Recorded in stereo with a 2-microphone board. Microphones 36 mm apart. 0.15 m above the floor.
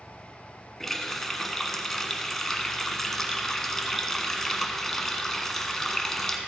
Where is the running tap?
10° left (ahead or behind), 0.9 m.